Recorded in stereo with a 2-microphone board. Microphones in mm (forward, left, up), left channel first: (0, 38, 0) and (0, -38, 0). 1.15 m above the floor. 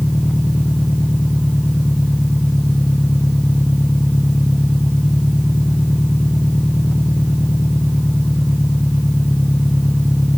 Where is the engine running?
15° left (ahead or behind).